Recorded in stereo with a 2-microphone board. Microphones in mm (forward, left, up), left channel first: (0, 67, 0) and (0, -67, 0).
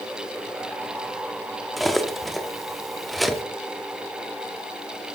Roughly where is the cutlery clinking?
Centre.